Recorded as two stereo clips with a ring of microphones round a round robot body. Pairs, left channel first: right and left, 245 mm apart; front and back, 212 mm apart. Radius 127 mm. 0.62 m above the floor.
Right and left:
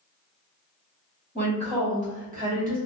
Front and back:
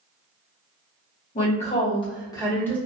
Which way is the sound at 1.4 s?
35° left.